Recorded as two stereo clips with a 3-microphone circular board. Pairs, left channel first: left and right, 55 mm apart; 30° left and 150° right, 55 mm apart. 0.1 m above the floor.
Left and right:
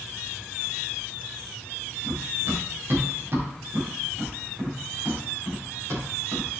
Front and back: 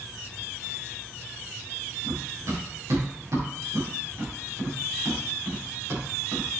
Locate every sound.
2.0 s running footsteps: 135° right, 5.5 m; by 6.6 s 115° right, 7 m